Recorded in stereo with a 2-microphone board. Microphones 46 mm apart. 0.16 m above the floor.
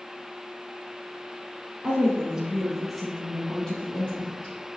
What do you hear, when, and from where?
1.8 s a woman speaking: 25° right (ahead or behind), 1.4 m; by 4.7 s 40° left (ahead or behind), 1.5 m